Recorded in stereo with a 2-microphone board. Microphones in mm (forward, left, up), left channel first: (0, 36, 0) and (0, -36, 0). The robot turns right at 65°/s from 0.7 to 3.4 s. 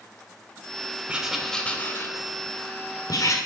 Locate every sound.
1.1 s writing: 15° right (ahead or behind), 2 m; by 3.4 s 45° left (ahead or behind), 2 m